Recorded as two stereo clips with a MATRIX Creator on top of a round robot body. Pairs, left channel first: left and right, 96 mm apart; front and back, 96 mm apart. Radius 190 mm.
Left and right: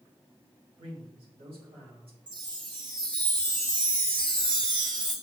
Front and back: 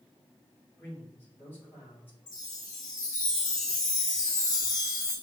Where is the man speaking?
70° right, 4 m.